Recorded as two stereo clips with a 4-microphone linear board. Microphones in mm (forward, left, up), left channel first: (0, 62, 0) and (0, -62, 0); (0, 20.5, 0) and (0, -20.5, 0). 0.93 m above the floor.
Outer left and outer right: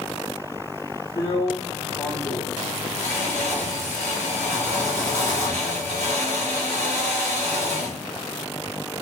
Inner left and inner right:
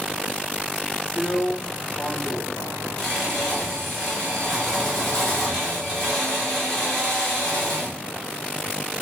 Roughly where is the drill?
Centre.